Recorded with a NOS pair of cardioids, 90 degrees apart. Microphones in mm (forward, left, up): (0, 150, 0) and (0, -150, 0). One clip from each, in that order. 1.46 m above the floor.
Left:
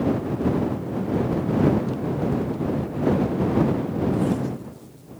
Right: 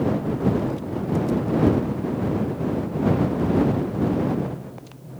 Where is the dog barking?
I don't hear a dog barking.